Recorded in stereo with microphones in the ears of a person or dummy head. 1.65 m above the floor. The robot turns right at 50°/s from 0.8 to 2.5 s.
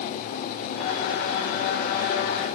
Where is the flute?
No flute in this recording.